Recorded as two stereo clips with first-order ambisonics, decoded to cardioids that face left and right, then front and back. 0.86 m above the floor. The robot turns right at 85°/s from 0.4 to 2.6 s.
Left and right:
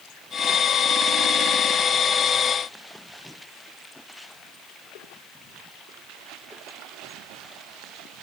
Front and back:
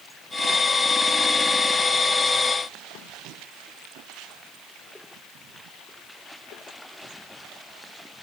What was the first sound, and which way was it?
Only background noise.